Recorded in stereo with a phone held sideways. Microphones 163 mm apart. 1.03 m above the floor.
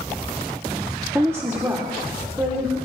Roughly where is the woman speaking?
Centre.